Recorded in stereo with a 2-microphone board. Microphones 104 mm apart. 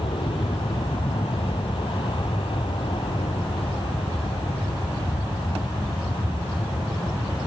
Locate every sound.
0.0 s an aircraft: 60° left (ahead or behind)